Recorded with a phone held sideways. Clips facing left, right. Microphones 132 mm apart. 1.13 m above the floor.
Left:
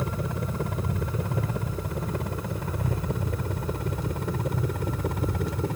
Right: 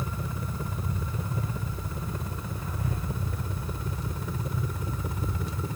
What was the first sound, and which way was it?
A helicopter, 75° left (ahead or behind).